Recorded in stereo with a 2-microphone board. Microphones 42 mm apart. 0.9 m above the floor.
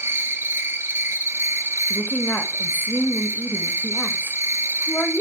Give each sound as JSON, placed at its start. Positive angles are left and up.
{"t": 0.0, "sound": "an insect", "side_deg": -80, "distance_m": 0.8}
{"t": 1.9, "sound": "a woman speaking", "side_deg": 50, "distance_m": 1.1}